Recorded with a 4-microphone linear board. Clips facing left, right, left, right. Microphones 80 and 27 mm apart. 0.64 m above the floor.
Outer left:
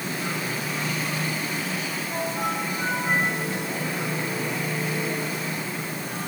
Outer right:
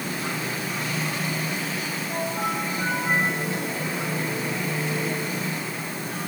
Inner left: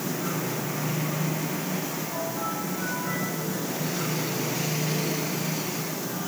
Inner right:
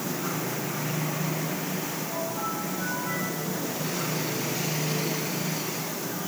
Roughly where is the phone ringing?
I don't hear a phone ringing.